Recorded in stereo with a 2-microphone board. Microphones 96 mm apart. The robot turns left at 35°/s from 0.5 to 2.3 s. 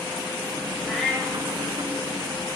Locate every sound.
0.8 s a cat meowing: centre (ahead or behind), 2.0 m; by 1.4 s 20° left (ahead or behind), 2.0 m